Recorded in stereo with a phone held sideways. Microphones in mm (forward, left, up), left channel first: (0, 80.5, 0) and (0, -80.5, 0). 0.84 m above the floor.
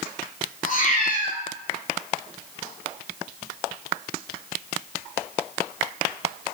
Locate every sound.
0.7 s a cat meowing: 55° left (ahead or behind), 2 m